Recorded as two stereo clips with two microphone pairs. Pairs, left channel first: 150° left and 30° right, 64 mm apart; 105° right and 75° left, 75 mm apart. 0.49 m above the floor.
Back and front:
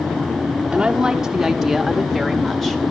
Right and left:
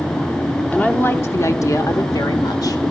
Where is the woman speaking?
70° right, 0.9 m; by 2.8 s 125° right, 1.7 m.